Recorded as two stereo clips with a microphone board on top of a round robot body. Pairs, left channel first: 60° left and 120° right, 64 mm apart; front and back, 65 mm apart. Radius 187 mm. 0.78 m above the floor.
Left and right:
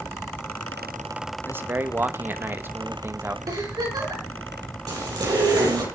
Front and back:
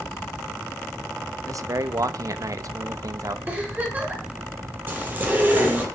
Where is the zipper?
120° right, 6.5 m.